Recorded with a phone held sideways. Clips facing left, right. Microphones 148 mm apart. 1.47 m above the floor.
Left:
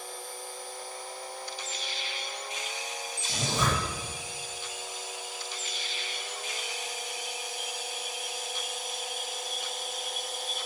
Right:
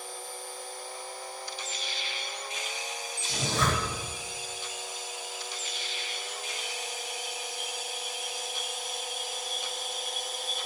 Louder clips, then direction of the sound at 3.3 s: Even; 20° left (ahead or behind).